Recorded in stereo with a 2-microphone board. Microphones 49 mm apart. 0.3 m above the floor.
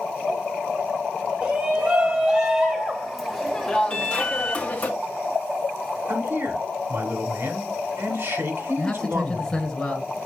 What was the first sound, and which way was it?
A shout, 40° right (ahead or behind).